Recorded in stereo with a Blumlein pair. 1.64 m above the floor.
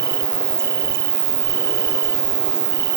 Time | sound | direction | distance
0.0 | an insect | 60° right | ?